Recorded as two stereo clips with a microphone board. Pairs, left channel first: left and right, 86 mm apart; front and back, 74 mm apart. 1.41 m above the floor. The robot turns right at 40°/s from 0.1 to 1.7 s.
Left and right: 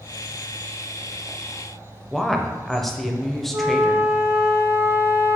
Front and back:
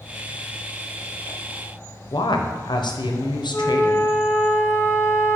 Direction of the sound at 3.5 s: 50° right.